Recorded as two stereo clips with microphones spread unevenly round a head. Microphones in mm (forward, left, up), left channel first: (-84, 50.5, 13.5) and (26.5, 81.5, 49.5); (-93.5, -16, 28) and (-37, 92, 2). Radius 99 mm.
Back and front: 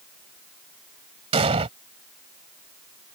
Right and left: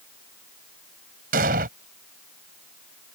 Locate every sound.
1.3 s an explosion: 30° left